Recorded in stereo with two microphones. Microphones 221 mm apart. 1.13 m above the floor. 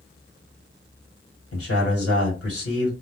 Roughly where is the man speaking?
Left.